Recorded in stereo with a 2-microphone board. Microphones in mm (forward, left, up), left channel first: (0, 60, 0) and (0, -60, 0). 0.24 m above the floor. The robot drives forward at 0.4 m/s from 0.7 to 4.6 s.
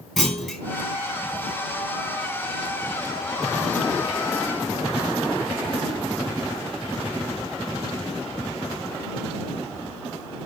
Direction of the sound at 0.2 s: Centre (ahead or behind).